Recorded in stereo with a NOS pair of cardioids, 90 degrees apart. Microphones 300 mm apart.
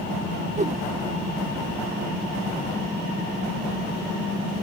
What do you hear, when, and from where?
0.6 s a whoosh: 25° right